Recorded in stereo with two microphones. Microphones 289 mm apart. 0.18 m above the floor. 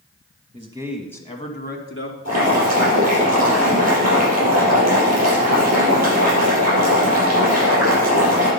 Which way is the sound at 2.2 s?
65° right (ahead or behind).